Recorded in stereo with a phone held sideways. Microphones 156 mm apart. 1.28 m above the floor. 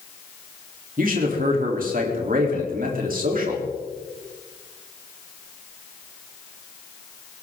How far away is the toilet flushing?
No toilet flushing in this recording.